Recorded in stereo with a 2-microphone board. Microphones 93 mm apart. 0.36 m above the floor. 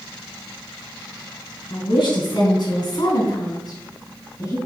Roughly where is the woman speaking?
Left.